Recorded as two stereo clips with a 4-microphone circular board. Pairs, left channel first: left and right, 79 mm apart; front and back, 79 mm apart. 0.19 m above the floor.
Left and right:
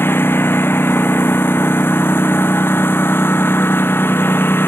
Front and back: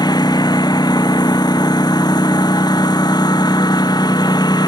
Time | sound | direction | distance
0.0 | a lawn mower | 25° left | ?